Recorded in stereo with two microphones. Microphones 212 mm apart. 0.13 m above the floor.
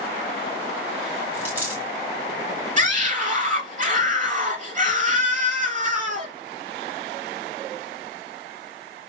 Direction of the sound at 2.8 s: 35° right (ahead or behind).